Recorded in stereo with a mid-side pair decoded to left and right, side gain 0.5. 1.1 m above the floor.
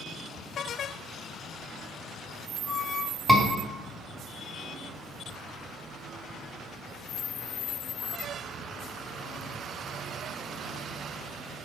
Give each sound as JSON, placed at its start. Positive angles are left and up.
{"t": 3.3, "sound": "a scream", "azimuth_deg": 5, "distance_m": 3.0}